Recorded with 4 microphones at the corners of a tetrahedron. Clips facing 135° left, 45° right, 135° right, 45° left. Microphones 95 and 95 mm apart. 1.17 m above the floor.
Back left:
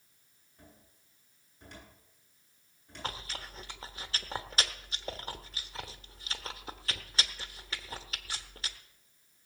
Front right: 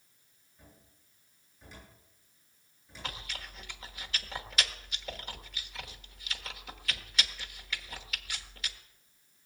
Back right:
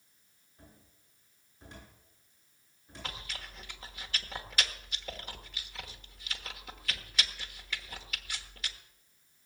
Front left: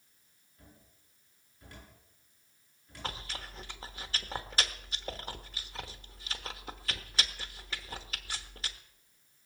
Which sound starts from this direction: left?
Chewing, at 3.0 s.